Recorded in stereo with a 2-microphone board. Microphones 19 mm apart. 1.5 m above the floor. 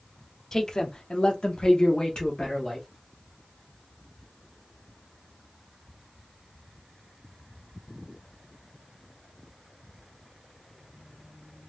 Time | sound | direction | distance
0.5 | a man speaking | 30° left (ahead or behind) | 0.8 m